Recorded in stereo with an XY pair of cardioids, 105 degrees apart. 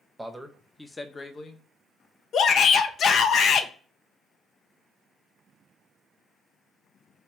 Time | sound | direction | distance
0.2 | a man speaking | 15° right | 0.9 m
2.3 | a shout | 60° left | 0.6 m